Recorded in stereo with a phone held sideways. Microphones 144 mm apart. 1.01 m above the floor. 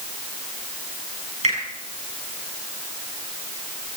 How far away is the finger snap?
About 7 m.